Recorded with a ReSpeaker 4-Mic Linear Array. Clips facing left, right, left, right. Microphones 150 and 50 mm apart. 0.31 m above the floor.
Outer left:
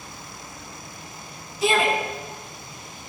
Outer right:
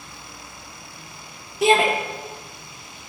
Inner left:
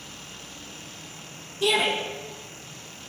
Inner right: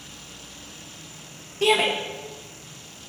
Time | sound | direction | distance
1.6 | a shout | 65° right (ahead or behind) | 8 m